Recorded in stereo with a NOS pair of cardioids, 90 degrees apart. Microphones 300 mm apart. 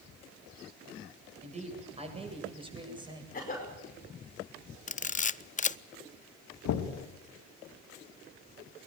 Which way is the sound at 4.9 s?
25° left.